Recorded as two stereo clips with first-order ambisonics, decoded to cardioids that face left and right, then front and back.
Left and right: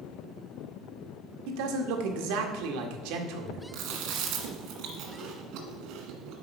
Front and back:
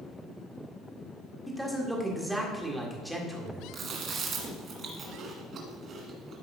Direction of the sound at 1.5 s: 90° right.